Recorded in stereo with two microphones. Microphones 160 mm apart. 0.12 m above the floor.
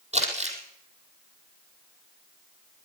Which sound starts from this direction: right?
Crumpling, at 0.1 s.